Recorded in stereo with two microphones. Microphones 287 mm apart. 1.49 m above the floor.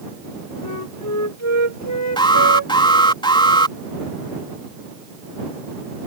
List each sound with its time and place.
0.6 s a flute: 65° left (ahead or behind)
2.2 s an alarm: 15° left (ahead or behind)